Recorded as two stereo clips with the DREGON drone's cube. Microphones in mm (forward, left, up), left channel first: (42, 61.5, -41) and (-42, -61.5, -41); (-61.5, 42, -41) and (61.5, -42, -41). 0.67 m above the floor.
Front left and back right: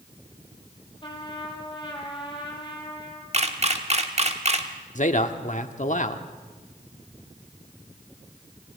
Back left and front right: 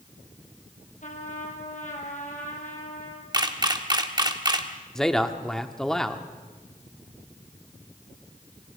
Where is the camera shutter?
90° right, 1.5 m.